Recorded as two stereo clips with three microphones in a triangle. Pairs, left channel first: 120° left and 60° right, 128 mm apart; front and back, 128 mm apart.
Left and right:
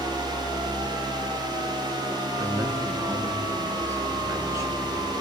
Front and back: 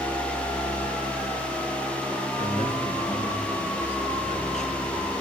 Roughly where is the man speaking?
Ahead.